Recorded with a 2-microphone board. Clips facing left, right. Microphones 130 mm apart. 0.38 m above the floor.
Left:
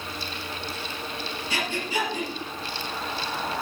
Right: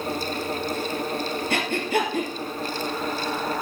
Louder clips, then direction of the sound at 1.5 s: Right 4 dB; 60° right (ahead or behind).